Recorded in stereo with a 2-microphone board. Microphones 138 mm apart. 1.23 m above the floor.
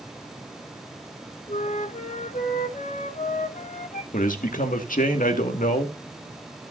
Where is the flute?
75° left (ahead or behind), 1.5 m.